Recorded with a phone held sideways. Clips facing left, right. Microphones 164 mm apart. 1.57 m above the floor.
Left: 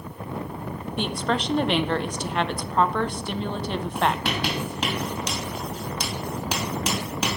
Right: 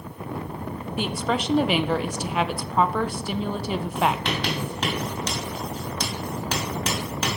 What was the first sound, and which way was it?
A woman speaking, 5° right (ahead or behind).